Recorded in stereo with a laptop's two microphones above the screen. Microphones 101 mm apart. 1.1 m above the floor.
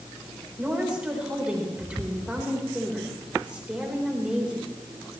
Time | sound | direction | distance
0.6 | a woman speaking | 10° right (ahead or behind) | 4 m